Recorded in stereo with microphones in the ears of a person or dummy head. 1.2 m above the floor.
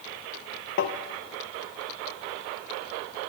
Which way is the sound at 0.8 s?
60° left (ahead or behind).